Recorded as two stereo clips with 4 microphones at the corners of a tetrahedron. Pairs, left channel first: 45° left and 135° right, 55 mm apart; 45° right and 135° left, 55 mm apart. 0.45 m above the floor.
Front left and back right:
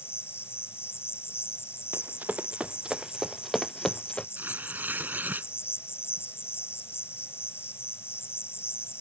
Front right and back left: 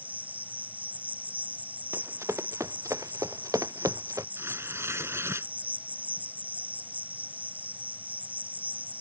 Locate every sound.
0.0 s an insect: 80° left
1.9 s running footsteps: 175° left; by 4.3 s 115° left
4.4 s tearing paper: 170° left